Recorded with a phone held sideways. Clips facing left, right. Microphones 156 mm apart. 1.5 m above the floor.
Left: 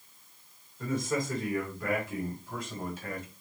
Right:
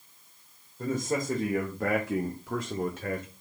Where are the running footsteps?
No running footsteps in this recording.